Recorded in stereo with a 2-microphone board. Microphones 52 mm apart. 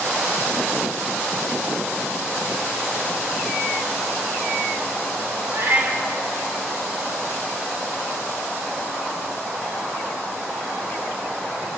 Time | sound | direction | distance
5.5 | a cat meowing | 60° right (ahead or behind) | 1.7 m